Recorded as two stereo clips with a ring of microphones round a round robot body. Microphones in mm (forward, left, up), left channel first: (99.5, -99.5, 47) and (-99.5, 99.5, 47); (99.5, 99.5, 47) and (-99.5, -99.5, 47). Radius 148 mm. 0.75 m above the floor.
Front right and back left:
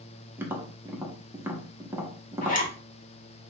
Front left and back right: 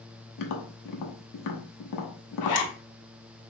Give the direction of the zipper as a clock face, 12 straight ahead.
11 o'clock.